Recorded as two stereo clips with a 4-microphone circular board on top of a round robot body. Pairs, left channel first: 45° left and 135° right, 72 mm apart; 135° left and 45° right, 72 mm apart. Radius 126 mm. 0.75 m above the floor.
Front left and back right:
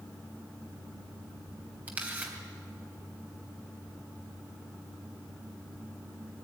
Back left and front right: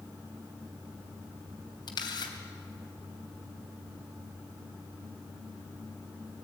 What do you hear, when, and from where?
1.9 s a camera shutter: 155° left, 3 m